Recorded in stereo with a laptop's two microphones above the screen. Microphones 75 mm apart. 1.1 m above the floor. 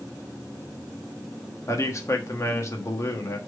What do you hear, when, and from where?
1.7 s a man speaking: 40° left (ahead or behind), 1.5 m